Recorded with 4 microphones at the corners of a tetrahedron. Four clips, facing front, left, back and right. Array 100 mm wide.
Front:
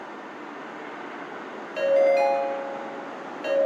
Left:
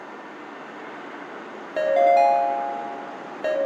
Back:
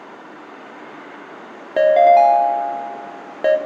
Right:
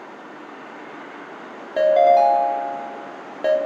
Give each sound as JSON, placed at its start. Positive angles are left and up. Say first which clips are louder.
{"t": 1.8, "sound": "a ringtone", "louder": "right 3 dB, back 9 dB", "azimuth_deg": -170, "distance_m": 1.1}